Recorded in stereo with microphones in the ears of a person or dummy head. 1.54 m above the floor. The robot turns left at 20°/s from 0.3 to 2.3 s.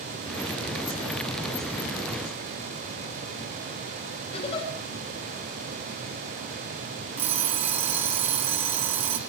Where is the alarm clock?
30° right (ahead or behind), 1.4 m.